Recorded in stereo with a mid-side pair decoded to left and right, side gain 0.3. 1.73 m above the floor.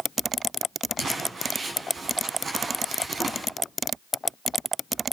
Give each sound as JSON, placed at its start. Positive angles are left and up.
{"t": 1.0, "sound": "crumpling", "azimuth_deg": -65, "distance_m": 4.0}